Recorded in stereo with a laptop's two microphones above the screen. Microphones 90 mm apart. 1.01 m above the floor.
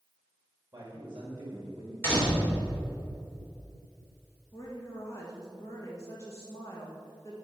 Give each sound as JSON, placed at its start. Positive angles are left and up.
{"t": 0.7, "sound": "a man speaking", "side_deg": -25, "distance_m": 1.9}
{"t": 2.0, "sound": "a door slam", "side_deg": 20, "distance_m": 3.0}
{"t": 4.5, "sound": "a woman speaking", "side_deg": 35, "distance_m": 1.3}